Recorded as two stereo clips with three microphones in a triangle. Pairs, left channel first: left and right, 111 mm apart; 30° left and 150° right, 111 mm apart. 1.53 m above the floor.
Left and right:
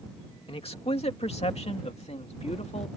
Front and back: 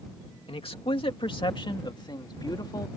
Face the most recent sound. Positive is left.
turn(degrees=85)